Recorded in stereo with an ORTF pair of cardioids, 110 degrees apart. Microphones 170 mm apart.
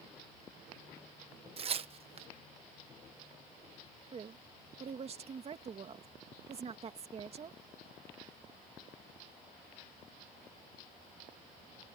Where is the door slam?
No door slam in this recording.